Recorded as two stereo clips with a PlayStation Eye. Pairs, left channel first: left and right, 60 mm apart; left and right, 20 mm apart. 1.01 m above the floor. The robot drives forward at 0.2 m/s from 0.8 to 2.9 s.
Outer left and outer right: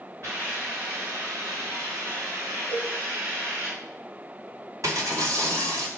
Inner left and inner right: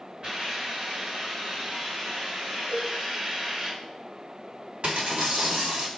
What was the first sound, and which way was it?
A hiss, 45° right (ahead or behind).